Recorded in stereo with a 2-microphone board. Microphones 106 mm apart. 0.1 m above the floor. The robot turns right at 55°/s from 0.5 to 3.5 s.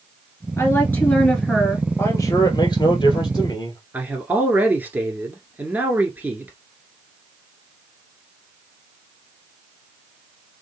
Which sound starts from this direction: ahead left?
A man speaking, at 2.0 s.